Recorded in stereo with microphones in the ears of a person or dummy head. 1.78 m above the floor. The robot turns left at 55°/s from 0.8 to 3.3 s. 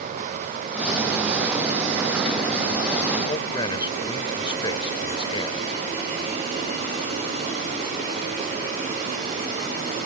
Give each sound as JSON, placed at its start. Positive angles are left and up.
{"t": 3.2, "sound": "a man speaking", "side_deg": 20}